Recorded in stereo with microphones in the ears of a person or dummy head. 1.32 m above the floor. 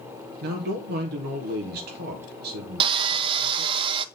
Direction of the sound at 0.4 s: 55° right (ahead or behind).